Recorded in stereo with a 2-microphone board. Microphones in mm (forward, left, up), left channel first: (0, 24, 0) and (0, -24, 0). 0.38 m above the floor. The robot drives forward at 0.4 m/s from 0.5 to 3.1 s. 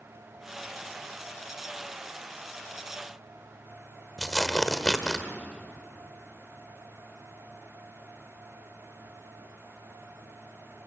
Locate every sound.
4.2 s tearing paper: 10° left (ahead or behind), 1.3 m